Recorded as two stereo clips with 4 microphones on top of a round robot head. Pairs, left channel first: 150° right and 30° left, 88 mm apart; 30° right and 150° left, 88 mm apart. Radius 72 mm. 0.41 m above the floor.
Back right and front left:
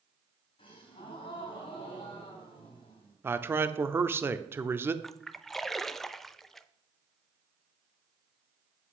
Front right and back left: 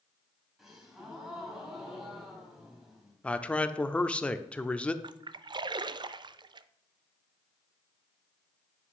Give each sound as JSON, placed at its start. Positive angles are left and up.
{"t": 0.6, "sound": "a gasp", "azimuth_deg": -130, "distance_m": 3.5}
{"t": 3.2, "sound": "a man speaking", "azimuth_deg": 25, "distance_m": 0.8}
{"t": 5.0, "sound": "a splash", "azimuth_deg": 125, "distance_m": 0.5}